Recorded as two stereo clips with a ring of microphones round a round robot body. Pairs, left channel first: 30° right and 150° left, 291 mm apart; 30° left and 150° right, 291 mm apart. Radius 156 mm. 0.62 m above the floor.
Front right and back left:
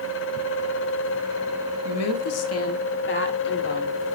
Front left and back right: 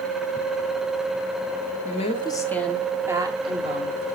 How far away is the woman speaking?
About 1.5 m.